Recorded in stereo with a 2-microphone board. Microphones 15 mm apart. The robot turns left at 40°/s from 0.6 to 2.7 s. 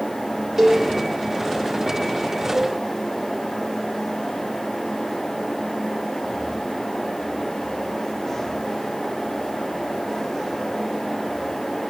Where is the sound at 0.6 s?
5° right (ahead or behind), 5.5 m; by 0.9 s 5° left (ahead or behind), 5.5 m.